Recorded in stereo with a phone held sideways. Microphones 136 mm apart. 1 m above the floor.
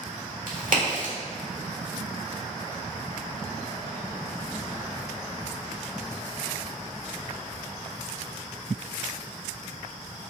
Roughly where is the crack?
Right.